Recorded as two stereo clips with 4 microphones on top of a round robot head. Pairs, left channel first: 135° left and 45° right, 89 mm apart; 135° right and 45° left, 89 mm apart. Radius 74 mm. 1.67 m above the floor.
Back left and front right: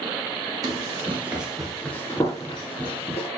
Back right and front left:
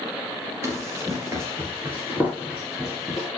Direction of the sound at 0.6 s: 10° right.